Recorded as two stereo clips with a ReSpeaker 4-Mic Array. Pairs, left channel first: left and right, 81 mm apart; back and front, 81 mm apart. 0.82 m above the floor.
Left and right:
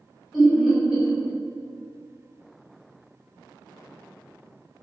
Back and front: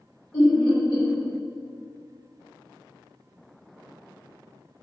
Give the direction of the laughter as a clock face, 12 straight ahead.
6 o'clock.